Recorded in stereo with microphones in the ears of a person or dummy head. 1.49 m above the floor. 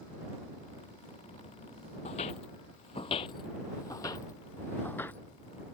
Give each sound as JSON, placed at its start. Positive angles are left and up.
{"t": 2.0, "sound": "footsteps", "side_deg": 35}